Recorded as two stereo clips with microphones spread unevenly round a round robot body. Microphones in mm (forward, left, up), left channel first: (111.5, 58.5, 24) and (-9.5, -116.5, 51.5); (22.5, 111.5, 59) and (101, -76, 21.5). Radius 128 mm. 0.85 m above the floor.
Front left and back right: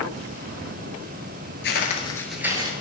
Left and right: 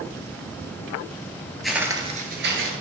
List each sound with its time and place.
1.6 s footsteps: 35° left, 1.0 m; by 2.7 s 75° right, 1.1 m